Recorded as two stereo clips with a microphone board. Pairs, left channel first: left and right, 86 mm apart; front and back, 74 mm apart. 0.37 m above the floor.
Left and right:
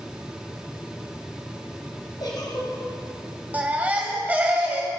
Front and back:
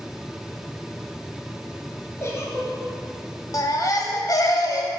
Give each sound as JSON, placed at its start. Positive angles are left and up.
{"t": 2.2, "sound": "a giggle", "azimuth_deg": 50, "distance_m": 1.7}
{"t": 3.5, "sound": "a baby crying", "azimuth_deg": -20, "distance_m": 1.5}